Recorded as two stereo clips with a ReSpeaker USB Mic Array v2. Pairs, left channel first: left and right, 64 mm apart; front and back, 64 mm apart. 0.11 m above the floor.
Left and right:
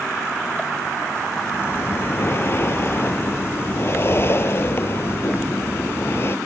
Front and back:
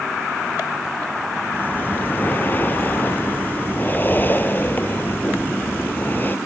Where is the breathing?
50° left.